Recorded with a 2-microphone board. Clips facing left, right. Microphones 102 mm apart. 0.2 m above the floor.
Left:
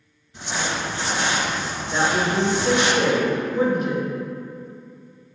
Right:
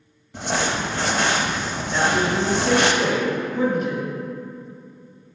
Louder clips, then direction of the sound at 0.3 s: Right 3 dB; 65° right (ahead or behind).